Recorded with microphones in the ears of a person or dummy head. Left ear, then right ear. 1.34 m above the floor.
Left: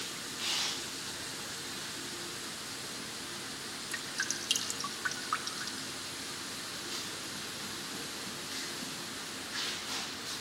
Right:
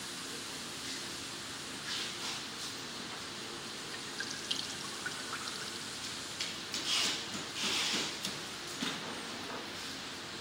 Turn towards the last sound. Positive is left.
turn(degrees=55)  # may be behind; listen again after turning